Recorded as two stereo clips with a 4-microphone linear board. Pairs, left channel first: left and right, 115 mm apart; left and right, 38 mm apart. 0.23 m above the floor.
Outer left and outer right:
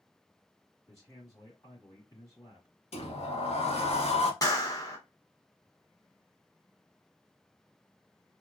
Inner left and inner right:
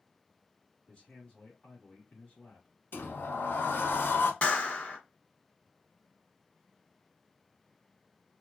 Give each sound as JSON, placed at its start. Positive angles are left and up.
{"t": 0.9, "sound": "a man speaking", "side_deg": 30, "distance_m": 1.6}
{"t": 2.9, "sound": "a sliding door", "side_deg": 65, "distance_m": 0.6}
{"t": 4.4, "sound": "a clap", "side_deg": 35, "distance_m": 1.1}